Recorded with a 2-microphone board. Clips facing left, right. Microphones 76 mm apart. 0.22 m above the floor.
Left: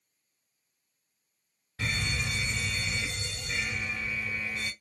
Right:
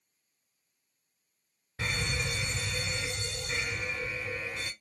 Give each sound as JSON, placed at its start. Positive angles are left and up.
{"t": 1.8, "sound": "a fire alarm", "side_deg": -25, "distance_m": 2.0}